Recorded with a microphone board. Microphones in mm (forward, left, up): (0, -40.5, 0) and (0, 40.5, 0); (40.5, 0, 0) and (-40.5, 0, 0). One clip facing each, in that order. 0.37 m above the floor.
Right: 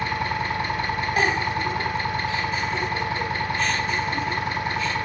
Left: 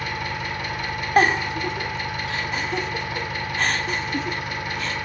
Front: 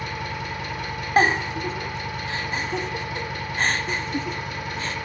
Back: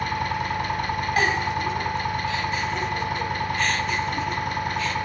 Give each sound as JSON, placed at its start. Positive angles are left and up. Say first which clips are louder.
{"t": 0.0, "sound": "an engine running", "louder": "right 3 dB, back 5 dB", "azimuth_deg": -145, "distance_m": 1.3}
{"t": 1.2, "sound": "a giggle", "louder": "left 6 dB, front 5 dB", "azimuth_deg": 55, "distance_m": 0.6}